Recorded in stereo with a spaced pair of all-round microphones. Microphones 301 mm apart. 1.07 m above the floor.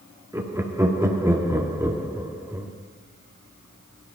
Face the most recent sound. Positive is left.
turn(degrees=-10)  # may be behind; listen again after turning